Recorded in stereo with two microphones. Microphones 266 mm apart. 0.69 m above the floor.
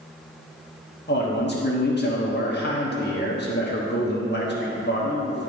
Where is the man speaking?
40° left (ahead or behind), 1.2 m.